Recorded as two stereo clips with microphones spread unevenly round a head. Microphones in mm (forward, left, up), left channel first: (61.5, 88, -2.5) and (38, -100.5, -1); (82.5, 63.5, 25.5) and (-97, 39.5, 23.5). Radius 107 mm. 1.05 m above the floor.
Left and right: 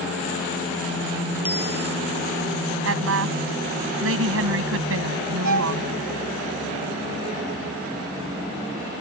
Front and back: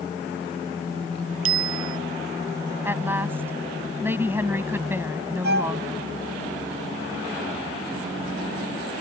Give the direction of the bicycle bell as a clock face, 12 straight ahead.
6 o'clock.